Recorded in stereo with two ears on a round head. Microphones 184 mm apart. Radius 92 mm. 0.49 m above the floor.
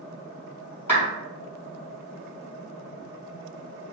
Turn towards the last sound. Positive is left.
turn(degrees=10)  # may be behind; listen again after turning